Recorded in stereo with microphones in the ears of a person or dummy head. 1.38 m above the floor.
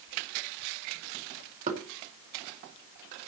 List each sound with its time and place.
1.7 s knocking: 50° right (ahead or behind), 2 m